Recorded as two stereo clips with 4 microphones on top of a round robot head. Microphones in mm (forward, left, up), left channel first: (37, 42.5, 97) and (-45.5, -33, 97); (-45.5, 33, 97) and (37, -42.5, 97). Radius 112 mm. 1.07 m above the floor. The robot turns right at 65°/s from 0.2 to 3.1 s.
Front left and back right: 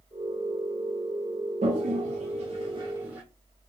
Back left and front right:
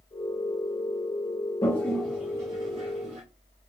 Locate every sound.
1.6 s a toilet flushing: 160° right, 0.7 m; by 3.2 s 60° right, 0.7 m